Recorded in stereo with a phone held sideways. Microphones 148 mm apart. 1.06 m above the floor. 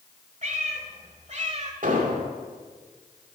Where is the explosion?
65° right (ahead or behind), 2 m.